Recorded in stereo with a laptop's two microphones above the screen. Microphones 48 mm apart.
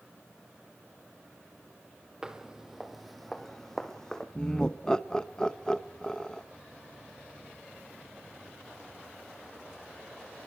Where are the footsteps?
15° right (ahead or behind), 1.8 m; by 4.2 s 10° left (ahead or behind), 2.5 m.